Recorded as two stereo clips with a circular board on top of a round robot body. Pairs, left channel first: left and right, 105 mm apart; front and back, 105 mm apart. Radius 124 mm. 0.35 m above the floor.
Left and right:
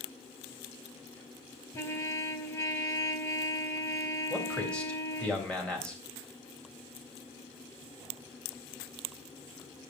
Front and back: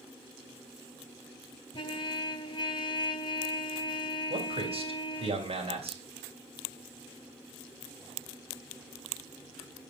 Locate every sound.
1.7 s a trumpet: 35° left, 1.9 m
4.3 s a man speaking: 170° left, 3 m